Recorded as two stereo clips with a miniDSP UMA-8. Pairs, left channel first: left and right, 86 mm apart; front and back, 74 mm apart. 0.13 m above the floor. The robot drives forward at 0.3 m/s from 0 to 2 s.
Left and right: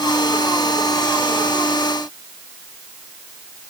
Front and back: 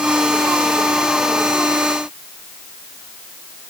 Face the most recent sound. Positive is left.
No sound to turn to.